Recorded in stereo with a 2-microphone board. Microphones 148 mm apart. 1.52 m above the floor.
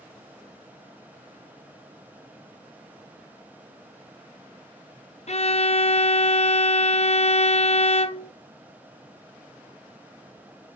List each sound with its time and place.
5.3 s a violin: 50° left (ahead or behind), 0.5 m